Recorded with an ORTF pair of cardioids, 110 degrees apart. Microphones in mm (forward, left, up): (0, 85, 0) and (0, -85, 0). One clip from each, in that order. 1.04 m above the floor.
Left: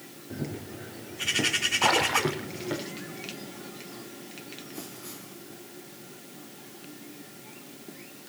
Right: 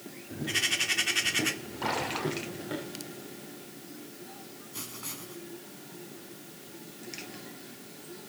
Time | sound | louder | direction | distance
0.3 | running footsteps | right 10 dB | 25° left | 4 m
1.8 | a splash | left 5 dB | 50° left | 2 m
4.7 | writing | right 1 dB | 40° right | 3.5 m